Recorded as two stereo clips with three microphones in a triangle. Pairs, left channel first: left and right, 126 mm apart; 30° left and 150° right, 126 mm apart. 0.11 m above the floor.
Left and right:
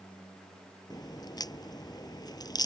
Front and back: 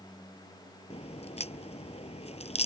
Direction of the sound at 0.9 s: 40° left.